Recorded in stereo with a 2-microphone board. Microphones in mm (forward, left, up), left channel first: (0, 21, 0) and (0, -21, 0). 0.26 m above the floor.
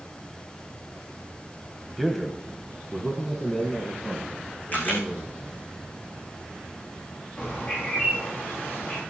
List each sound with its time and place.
2.0 s a man speaking: centre (ahead or behind), 1.2 m; by 5.6 s 30° left (ahead or behind), 4 m
4.7 s a camera shutter: 40° left (ahead or behind), 7 m
7.4 s a bird: 30° left (ahead or behind), 6 m